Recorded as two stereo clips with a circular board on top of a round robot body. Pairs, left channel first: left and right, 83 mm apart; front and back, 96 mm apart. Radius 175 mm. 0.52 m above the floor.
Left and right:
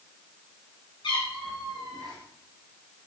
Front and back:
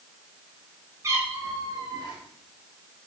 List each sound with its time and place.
1.0 s a cat meowing: 120° left, 4 m; by 2.2 s 135° left, 4.5 m